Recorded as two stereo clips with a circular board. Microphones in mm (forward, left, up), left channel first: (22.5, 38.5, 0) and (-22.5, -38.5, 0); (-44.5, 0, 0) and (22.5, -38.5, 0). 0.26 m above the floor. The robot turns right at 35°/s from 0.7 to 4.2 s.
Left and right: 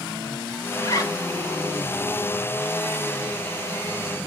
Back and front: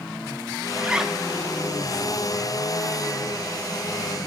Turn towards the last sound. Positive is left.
turn(degrees=160)